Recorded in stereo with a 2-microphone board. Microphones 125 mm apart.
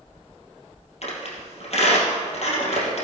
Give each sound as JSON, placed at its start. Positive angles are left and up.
{"t": 1.0, "sound": "a squeak", "side_deg": 55, "distance_m": 3.0}